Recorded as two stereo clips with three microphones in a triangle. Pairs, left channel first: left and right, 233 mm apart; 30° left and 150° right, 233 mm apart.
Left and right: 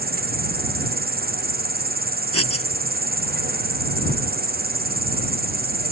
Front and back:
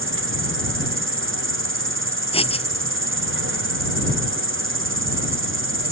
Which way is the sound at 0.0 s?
135° right.